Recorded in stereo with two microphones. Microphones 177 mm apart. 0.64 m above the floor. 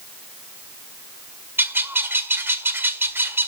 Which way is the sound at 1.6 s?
15° right (ahead or behind).